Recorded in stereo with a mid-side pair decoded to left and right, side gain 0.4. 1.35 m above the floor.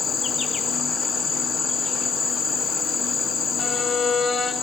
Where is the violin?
45° left, 1.6 m.